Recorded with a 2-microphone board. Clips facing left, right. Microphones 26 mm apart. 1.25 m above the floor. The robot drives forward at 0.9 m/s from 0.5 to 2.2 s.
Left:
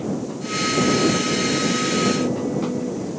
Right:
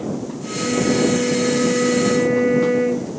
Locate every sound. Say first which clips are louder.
0.6 s a flute: right 1 dB; 65° right (ahead or behind); by 3.1 s 60° right (ahead or behind)